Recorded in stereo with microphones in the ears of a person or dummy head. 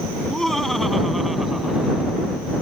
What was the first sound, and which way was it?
Laughter, centre (ahead or behind).